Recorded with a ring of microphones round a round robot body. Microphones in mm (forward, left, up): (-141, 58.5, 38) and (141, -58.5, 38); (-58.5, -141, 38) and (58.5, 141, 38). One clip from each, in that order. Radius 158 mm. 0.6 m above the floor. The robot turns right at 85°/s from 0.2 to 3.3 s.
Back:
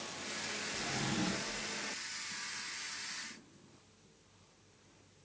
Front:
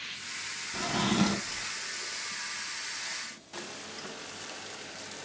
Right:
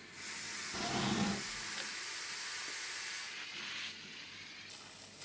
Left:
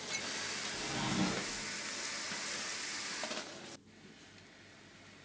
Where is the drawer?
65° right, 0.5 m; by 1.7 s 10° left, 0.5 m.